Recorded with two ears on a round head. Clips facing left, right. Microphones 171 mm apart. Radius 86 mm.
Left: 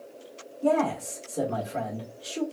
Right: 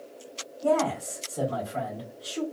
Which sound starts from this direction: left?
A man speaking, at 0.6 s.